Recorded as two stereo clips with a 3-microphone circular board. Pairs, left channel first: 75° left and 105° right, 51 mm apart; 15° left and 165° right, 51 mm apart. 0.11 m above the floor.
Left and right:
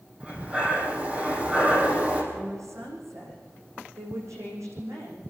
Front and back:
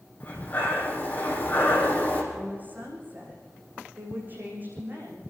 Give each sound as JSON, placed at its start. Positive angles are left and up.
{"t": 0.2, "sound": "breathing", "azimuth_deg": -40, "distance_m": 4.0}
{"t": 2.3, "sound": "a woman speaking", "azimuth_deg": -110, "distance_m": 7.5}